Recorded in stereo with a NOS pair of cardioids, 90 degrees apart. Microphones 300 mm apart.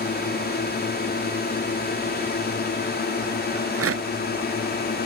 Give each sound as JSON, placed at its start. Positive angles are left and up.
{"t": 0.0, "sound": "a drone", "azimuth_deg": 35}
{"t": 3.5, "sound": "a rattle", "azimuth_deg": -50}